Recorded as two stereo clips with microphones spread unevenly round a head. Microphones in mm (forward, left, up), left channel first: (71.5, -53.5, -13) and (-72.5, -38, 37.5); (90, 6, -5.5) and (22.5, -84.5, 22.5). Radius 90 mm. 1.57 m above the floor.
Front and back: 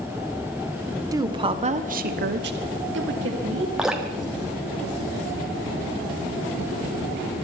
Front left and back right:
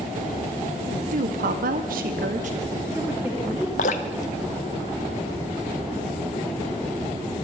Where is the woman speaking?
115° right, 1.4 m; by 3.7 s 145° left, 2 m.